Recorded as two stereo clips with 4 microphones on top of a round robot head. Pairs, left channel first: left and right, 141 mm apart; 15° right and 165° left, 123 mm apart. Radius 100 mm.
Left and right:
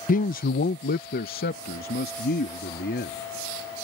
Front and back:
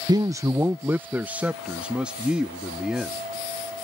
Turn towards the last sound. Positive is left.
turn(degrees=80)